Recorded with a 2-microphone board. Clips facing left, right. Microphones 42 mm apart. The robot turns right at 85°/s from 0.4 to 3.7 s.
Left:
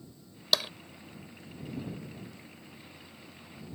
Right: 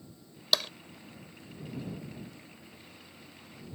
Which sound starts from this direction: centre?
Tapping, at 0.5 s.